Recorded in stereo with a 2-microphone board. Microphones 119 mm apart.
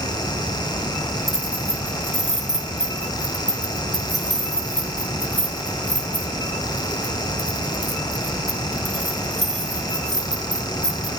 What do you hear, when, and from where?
1.3 s keys jangling: 70° left (ahead or behind), 2.5 m